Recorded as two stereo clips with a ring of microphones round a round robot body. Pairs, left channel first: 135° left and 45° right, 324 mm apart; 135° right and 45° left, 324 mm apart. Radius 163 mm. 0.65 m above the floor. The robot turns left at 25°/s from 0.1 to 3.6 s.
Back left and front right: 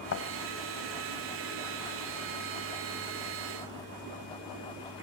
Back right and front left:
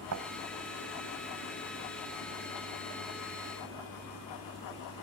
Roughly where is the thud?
Left.